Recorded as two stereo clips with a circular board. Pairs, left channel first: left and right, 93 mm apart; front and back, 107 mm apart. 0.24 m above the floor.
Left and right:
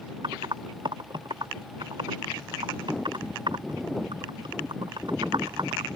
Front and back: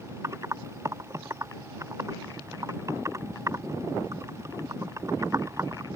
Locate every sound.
0.2 s typing on a keyboard: 120° right